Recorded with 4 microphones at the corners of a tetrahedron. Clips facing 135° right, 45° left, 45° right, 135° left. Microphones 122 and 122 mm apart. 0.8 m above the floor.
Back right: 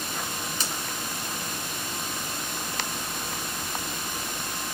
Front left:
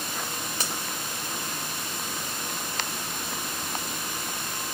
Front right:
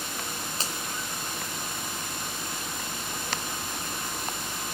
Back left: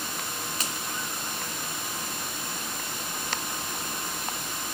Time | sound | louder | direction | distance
0.6 | a finger snap | front left 2 dB, front right 1 dB | 15° left | 3.5 m